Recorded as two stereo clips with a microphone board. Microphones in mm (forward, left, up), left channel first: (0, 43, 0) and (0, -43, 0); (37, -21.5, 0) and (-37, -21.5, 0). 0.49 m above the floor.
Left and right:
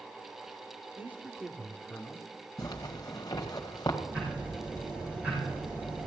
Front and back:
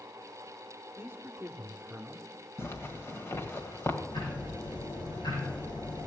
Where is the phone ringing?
No phone ringing in this recording.